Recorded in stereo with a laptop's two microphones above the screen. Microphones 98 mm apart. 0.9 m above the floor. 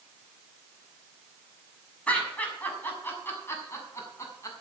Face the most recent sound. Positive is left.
turn(degrees=35)  # may be behind; listen again after turning